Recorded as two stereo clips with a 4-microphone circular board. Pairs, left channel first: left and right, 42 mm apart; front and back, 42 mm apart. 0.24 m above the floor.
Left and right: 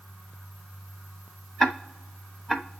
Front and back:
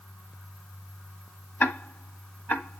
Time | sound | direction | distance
1.6 | ticking | 5° left | 1.3 m